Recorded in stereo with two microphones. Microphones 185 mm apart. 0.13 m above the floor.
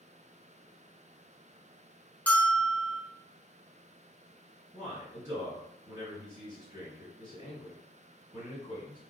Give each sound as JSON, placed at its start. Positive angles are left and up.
{"t": 2.3, "sound": "a bell", "side_deg": 10, "distance_m": 0.6}
{"t": 4.7, "sound": "a man speaking", "side_deg": -20, "distance_m": 1.8}